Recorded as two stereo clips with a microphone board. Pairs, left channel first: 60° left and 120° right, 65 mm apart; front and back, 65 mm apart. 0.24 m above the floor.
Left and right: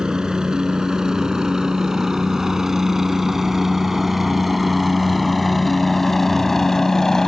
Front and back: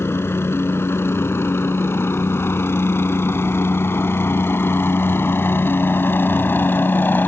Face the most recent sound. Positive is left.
turn(degrees=-15)